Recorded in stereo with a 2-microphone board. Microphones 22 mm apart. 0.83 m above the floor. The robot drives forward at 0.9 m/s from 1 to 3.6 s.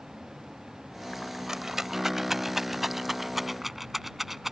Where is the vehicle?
25° right (ahead or behind); by 4.5 s 30° right (ahead or behind).